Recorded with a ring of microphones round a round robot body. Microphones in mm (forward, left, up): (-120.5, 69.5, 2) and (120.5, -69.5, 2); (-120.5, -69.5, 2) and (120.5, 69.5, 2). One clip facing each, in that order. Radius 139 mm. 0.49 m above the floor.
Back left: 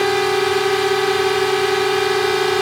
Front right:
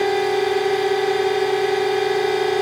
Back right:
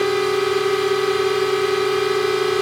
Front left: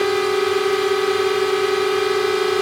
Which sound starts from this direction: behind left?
A drone, at 0.0 s.